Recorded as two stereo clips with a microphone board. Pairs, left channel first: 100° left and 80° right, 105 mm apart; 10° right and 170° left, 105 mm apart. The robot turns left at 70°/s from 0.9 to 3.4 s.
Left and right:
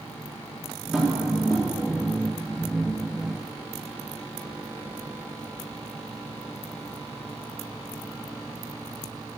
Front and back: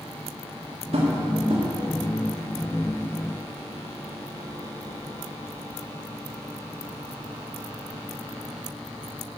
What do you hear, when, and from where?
0.9 s tapping: 165° right, 3 m; by 1.6 s 145° left, 3 m